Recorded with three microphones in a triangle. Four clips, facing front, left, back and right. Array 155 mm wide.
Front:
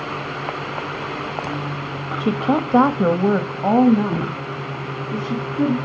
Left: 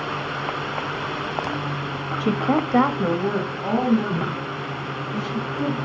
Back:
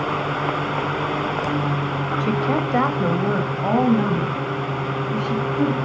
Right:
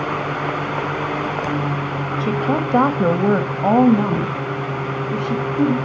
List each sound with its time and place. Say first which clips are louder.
2.2 s a woman speaking: even, front 3 dB; 40° left, 0.9 m; by 5.7 s 80° right, 3 m